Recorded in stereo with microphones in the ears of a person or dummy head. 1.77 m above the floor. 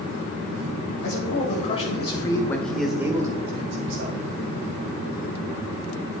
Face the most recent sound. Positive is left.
turn(degrees=-55)  # may be behind; listen again after turning